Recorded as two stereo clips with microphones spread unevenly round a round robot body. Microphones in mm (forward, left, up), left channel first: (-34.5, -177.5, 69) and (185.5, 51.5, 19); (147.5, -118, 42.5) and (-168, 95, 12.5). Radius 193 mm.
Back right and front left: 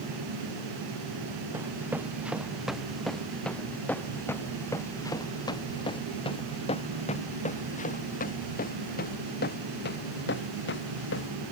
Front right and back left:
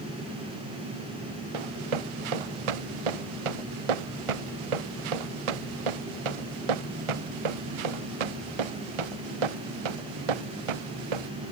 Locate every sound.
1.5 s running footsteps: 130° left; by 11.3 s 165° left